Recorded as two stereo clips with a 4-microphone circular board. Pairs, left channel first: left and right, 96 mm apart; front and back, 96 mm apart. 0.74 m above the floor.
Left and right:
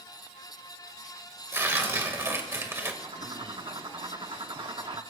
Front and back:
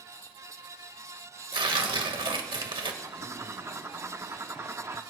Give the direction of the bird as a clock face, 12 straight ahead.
4 o'clock.